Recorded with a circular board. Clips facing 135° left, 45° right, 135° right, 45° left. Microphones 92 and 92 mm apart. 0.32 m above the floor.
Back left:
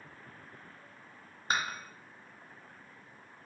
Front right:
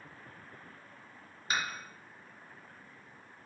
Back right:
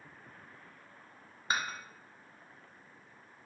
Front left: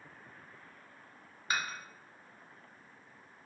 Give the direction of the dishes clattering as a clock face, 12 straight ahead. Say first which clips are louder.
Back left 2 dB, back right 1 dB; 6 o'clock.